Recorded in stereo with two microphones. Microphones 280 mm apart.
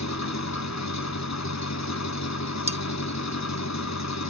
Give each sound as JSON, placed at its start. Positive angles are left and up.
{"t": 0.0, "sound": "an engine running", "side_deg": 70, "distance_m": 0.9}
{"t": 2.7, "sound": "cutlery clinking", "side_deg": -25, "distance_m": 0.5}